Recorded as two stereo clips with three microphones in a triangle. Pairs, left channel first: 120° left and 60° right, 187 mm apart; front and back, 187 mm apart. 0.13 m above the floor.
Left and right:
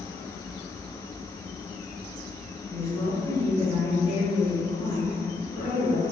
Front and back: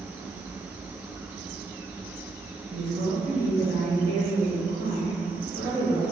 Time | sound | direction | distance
2.7 | a woman speaking | 170° right | 1.8 m